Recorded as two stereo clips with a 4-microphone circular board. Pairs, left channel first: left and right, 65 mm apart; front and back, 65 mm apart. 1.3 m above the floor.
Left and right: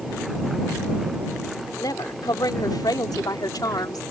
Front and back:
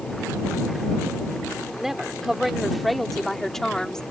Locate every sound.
1.8 s a woman speaking: 100° left; by 4.0 s 80° left